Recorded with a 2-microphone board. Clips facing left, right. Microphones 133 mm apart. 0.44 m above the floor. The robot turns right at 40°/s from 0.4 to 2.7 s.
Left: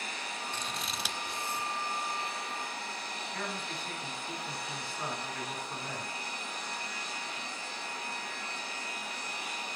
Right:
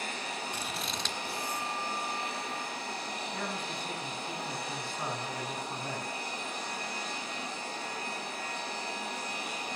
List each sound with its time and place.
0.5 s scissors: 10° right (ahead or behind), 1.1 m; by 1.7 s 35° left (ahead or behind), 1.1 m
3.3 s a man speaking: 15° right (ahead or behind), 3.5 m